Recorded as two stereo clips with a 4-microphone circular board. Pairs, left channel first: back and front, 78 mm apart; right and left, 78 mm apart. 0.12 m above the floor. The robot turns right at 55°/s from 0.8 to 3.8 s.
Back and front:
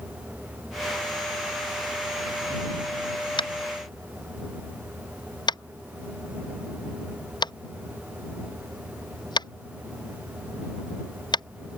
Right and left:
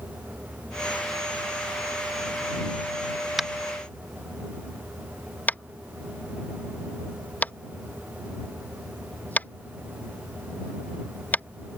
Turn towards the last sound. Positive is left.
turn(degrees=-160)